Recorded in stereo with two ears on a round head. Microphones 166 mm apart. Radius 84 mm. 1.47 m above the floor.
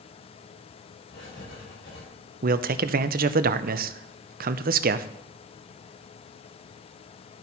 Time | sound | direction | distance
1.1 | writing | 65° left (ahead or behind) | 5 m
2.4 | a man speaking | 50° right (ahead or behind) | 0.6 m